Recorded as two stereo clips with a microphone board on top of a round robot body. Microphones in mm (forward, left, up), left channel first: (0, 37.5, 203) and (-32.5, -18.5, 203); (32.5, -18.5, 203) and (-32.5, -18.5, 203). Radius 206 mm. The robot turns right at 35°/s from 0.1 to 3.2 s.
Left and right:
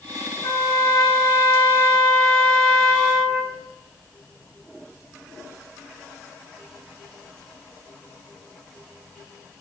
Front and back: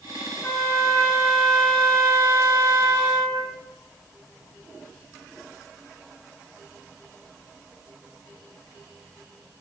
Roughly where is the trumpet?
Left.